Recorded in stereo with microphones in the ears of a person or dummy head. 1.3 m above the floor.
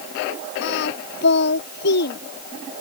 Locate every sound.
0.6 s singing: 55° left (ahead or behind)